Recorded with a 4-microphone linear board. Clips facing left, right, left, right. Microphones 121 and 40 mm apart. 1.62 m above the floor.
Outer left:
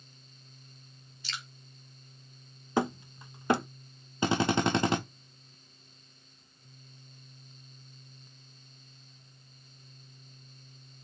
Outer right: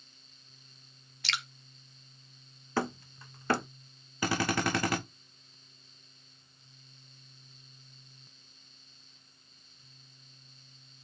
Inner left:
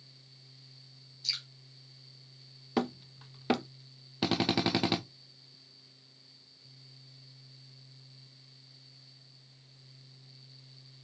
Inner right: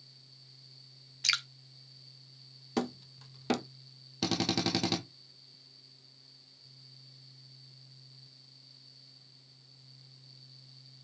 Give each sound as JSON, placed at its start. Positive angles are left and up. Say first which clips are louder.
{"t": 1.2, "sound": "dripping", "louder": "outer right 5 dB, inner right 8 dB", "side_deg": -85, "distance_m": 0.8}
{"t": 2.8, "sound": "hammering", "louder": "outer left 3 dB, inner left 2 dB", "side_deg": 20, "distance_m": 1.2}
{"t": 4.2, "sound": "a drill", "louder": "outer left 3 dB, inner left 2 dB", "side_deg": 25, "distance_m": 1.3}